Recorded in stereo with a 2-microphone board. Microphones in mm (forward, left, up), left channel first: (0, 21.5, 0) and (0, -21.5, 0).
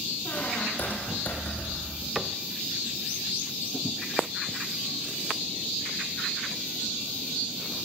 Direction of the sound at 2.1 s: Centre (ahead or behind).